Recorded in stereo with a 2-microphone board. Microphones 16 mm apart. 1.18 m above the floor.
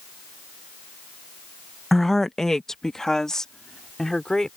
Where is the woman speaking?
20° left (ahead or behind); by 4.5 s 45° left (ahead or behind).